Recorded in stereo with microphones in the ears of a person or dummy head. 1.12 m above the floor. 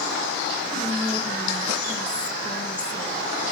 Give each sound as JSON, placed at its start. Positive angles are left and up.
{"t": 0.7, "sound": "whispering", "side_deg": 5, "distance_m": 1.8}